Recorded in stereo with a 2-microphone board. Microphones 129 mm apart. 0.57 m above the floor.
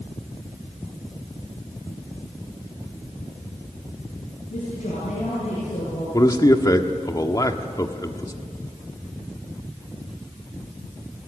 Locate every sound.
4.5 s a woman speaking: 75° left (ahead or behind), 8 m; by 6.0 s 70° left (ahead or behind), 8 m
6.1 s a man speaking: 30° left (ahead or behind), 1.4 m